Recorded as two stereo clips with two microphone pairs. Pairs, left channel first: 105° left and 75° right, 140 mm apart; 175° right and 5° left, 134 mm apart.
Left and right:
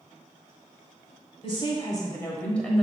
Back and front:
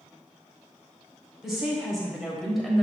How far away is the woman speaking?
About 1.7 m.